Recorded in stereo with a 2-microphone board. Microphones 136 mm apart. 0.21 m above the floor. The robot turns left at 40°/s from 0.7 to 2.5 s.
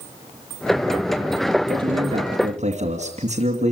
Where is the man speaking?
45° right, 2.5 m; by 3.7 s 80° right, 2.5 m.